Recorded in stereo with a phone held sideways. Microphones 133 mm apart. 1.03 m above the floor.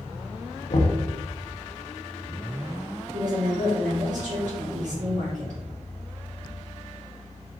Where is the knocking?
65° left (ahead or behind), 0.6 m.